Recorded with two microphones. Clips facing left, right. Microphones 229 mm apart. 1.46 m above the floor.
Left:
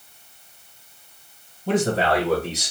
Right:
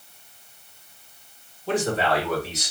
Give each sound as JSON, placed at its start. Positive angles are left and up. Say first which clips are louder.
{"t": 1.7, "sound": "a man speaking", "louder": "left 3 dB", "side_deg": 60, "distance_m": 1.5}